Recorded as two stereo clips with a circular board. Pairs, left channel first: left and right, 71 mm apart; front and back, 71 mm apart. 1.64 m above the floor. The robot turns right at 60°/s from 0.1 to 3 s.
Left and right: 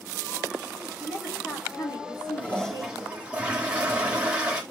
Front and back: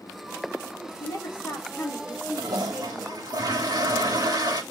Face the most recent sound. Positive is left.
turn(degrees=-165)